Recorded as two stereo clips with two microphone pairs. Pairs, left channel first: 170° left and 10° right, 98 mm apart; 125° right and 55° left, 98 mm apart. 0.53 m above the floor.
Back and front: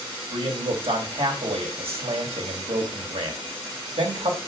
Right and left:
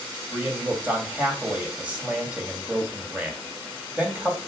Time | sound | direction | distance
0.3 | a man speaking | 15° right | 2.5 m